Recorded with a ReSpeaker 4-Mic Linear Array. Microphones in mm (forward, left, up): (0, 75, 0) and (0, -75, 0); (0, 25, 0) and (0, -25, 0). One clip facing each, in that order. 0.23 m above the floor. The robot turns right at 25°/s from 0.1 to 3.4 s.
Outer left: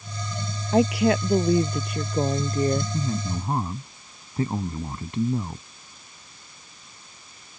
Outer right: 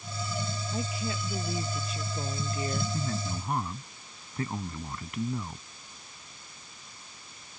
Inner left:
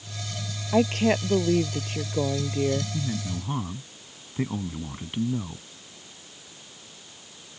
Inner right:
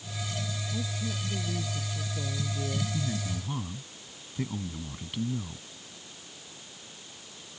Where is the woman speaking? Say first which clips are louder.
Outer left 18 dB, inner left 18 dB; 85° left; by 2.8 s 135° left.